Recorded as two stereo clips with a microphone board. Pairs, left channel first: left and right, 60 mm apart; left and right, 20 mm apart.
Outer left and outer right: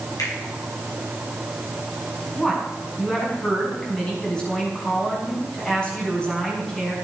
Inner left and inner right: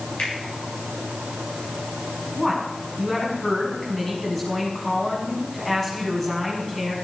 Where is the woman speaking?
15° left (ahead or behind), 5.5 m.